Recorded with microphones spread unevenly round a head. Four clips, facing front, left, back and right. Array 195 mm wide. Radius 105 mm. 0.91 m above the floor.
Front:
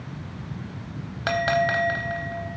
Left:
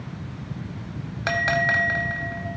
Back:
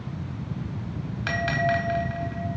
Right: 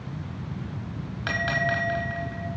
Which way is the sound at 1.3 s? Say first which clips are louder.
Left 4 dB, front 3 dB; 35° left.